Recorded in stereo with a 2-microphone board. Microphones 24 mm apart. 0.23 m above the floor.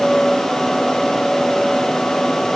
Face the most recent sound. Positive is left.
No sound to turn to.